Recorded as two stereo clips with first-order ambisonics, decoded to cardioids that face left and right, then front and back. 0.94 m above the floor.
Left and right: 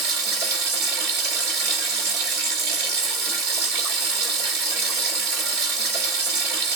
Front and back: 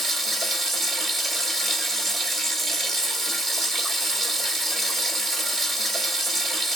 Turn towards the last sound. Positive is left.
turn(degrees=-110)